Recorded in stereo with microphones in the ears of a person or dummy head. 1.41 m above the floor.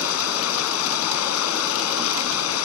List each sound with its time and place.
0.0 s running water: 90° left